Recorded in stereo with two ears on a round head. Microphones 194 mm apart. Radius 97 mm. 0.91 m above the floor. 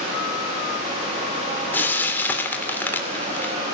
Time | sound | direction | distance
1.7 | frying | 10° left (ahead or behind) | 3 m